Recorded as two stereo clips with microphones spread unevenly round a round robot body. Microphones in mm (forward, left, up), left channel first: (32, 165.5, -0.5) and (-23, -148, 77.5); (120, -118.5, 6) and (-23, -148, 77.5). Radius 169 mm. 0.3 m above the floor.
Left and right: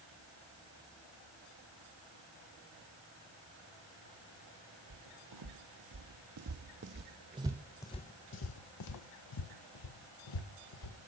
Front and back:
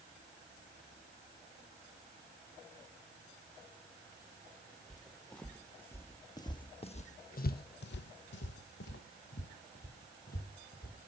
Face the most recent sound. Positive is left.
turn(degrees=65)